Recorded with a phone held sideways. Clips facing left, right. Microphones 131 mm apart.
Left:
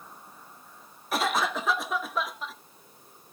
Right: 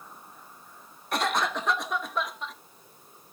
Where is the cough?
Centre (ahead or behind), 0.9 m.